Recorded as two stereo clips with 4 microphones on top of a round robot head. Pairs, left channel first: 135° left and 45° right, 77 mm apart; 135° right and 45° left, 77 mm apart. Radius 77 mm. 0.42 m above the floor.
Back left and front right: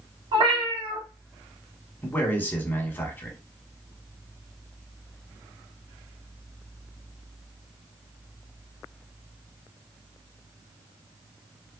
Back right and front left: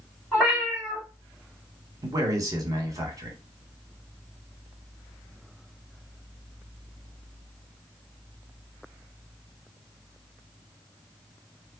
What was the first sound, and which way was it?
A cat meowing, 50° right.